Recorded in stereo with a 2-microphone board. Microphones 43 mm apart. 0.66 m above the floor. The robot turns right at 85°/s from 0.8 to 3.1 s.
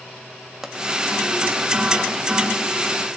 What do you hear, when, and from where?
0.6 s a pop: 15° right (ahead or behind), 1.2 m